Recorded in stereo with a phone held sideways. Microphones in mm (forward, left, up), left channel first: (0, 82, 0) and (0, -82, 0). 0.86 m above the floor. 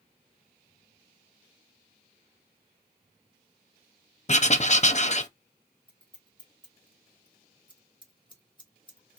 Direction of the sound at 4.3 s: 45° left (ahead or behind).